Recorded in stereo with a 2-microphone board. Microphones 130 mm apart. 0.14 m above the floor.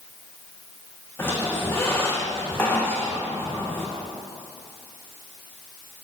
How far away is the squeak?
About 2 m.